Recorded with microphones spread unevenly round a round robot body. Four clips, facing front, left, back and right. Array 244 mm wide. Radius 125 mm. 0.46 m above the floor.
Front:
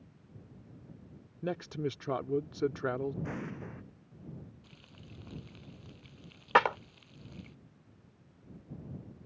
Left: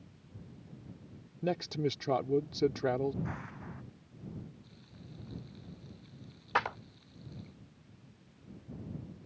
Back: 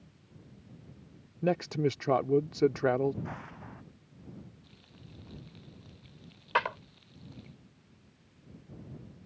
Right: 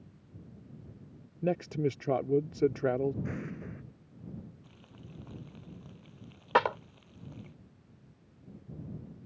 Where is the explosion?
45° right.